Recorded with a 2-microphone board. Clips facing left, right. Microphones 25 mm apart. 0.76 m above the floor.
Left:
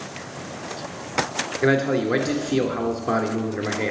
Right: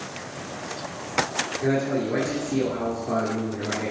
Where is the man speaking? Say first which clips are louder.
Left 5 dB; 70° left (ahead or behind), 1.8 m.